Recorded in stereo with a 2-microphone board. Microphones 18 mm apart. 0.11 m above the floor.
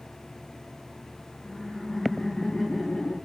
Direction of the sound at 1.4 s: 65° left (ahead or behind).